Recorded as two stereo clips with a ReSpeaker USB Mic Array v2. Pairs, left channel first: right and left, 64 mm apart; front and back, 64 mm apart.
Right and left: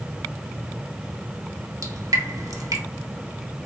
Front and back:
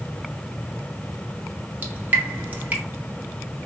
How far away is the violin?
No violin in this recording.